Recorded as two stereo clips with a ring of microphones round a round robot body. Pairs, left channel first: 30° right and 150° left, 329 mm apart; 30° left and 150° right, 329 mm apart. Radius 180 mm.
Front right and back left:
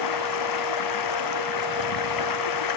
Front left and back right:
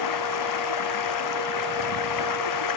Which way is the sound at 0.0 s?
Straight ahead.